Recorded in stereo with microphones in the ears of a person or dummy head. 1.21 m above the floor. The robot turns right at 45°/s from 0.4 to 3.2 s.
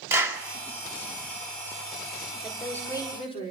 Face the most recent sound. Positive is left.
turn(degrees=30)